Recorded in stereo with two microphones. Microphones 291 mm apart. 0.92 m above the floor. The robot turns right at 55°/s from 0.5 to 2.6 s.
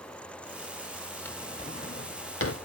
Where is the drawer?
5° left (ahead or behind), 0.9 m; by 2.6 s 55° left (ahead or behind), 0.9 m.